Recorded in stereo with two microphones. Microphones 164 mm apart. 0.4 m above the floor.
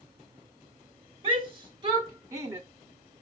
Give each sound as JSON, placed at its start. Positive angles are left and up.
{"t": 1.2, "sound": "a shout", "side_deg": -35, "distance_m": 2.5}